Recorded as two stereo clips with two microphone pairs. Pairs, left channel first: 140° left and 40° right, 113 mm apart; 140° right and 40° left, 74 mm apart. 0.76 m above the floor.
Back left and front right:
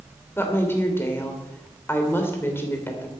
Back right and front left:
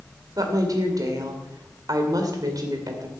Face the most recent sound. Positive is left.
turn(degrees=75)